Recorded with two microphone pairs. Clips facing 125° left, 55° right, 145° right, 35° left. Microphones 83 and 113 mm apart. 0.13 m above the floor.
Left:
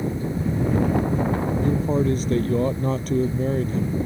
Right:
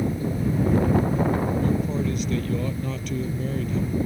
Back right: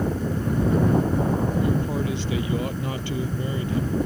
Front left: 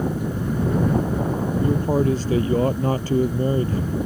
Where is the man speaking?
80° left.